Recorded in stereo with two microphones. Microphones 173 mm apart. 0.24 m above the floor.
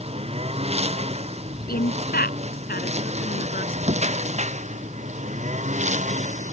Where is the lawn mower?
35° right (ahead or behind); by 6.5 s 40° right (ahead or behind).